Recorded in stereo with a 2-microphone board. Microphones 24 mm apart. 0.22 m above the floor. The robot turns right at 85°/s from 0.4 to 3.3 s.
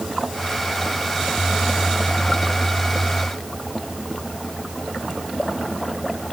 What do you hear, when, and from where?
Only background noise.